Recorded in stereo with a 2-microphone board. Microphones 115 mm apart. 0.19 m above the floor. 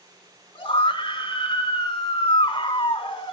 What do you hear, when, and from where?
0.6 s a scream: 50° left (ahead or behind), 2.5 m